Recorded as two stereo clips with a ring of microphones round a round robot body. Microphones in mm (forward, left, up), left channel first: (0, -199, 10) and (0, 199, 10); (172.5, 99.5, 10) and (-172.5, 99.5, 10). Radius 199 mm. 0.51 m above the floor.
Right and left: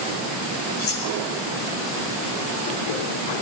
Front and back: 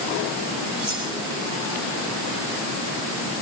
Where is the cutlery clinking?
75° right, 7 m.